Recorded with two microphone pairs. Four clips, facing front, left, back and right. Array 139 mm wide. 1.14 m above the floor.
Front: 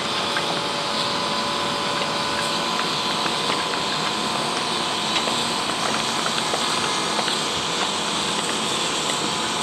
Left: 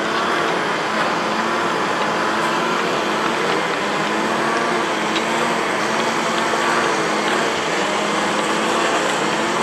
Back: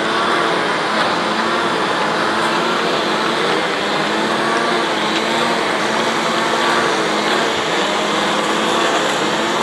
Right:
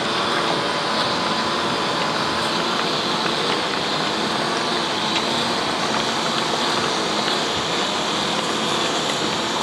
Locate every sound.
0.0 s a lawn mower: 165° left; by 9.6 s 160° left